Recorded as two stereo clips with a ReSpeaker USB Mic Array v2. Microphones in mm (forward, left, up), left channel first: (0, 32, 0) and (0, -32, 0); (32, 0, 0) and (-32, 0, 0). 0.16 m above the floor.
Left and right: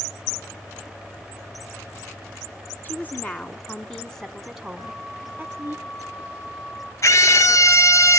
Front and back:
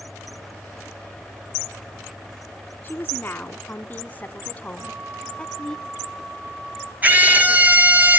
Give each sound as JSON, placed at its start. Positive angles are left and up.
{"t": 2.8, "sound": "a woman speaking", "azimuth_deg": 45, "distance_m": 1.5}
{"t": 4.8, "sound": "a flute", "azimuth_deg": 120, "distance_m": 6.5}
{"t": 7.0, "sound": "a scream", "azimuth_deg": 120, "distance_m": 3.0}